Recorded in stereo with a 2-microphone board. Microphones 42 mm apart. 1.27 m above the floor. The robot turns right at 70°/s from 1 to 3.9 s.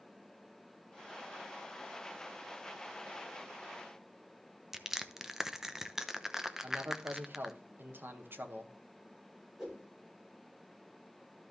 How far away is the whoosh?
About 4 m.